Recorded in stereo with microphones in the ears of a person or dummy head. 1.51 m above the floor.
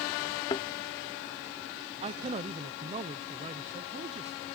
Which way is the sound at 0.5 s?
20° left (ahead or behind).